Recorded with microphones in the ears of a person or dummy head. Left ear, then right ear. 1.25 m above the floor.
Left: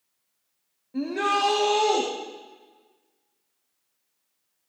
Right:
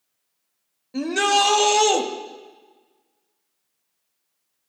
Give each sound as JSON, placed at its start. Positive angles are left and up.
{"t": 0.9, "sound": "a shout", "side_deg": -85, "distance_m": 1.6}